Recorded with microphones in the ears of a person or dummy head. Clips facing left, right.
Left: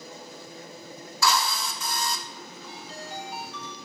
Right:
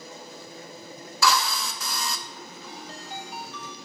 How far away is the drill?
About 0.7 m.